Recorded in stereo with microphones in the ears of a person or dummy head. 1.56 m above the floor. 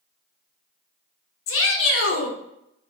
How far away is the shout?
About 0.7 m.